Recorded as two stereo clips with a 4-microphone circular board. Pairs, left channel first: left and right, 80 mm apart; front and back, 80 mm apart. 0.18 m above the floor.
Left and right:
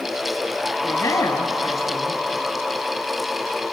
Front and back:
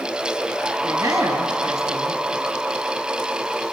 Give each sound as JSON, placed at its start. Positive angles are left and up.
{"t": 0.8, "sound": "a man speaking", "azimuth_deg": 135, "distance_m": 4.5}